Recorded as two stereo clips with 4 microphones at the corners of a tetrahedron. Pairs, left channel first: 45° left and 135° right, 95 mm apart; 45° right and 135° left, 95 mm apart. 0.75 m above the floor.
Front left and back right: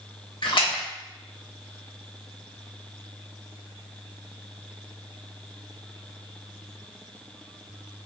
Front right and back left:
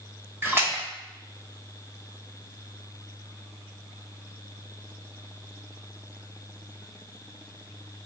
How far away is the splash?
About 1.0 m.